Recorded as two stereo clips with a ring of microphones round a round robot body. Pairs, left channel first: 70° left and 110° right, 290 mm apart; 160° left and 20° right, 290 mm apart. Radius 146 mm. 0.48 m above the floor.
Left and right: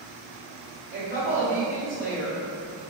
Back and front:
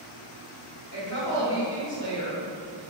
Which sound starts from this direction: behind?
A woman speaking, at 0.9 s.